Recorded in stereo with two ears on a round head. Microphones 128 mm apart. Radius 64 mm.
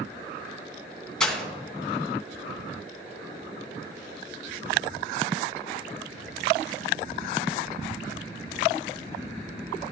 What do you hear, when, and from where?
1.2 s breaking glass: 5° left (ahead or behind), 2.5 m